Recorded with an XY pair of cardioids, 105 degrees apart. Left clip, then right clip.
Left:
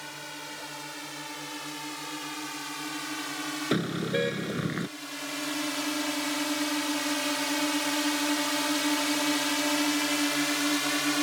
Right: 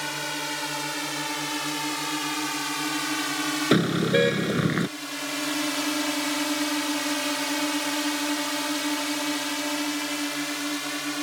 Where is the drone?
65° right; by 11.2 s 20° left.